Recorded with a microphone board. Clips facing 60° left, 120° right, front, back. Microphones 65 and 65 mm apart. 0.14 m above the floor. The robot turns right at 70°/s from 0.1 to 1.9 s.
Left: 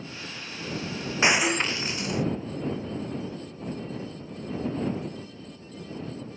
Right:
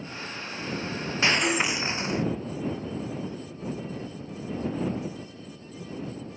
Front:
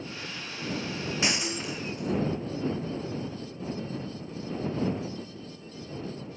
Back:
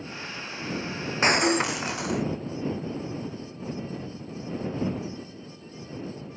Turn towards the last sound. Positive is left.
turn(degrees=180)